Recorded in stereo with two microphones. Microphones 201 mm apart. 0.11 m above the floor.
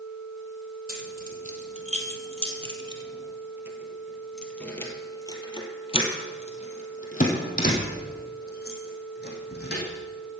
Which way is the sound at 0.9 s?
45° right (ahead or behind).